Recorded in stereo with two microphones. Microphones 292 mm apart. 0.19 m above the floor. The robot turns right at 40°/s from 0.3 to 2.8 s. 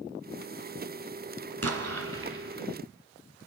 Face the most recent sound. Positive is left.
turn(degrees=-40)